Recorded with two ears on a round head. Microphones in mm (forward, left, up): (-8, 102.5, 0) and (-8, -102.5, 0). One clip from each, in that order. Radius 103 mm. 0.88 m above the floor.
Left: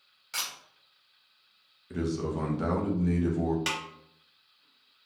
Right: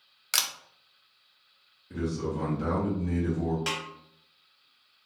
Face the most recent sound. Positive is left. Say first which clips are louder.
# even
turn(degrees=20)  # may be behind; listen again after turning